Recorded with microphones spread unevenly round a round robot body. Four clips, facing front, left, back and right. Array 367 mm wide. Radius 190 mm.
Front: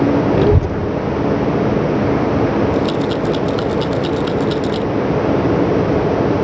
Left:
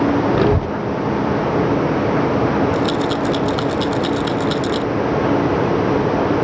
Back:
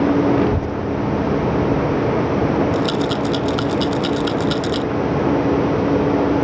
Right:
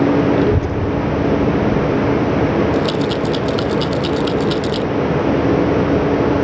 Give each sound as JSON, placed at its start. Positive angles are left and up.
{"t": 0.3, "sound": "a child speaking", "azimuth_deg": 25}
{"t": 2.7, "sound": "a rattle", "azimuth_deg": -170}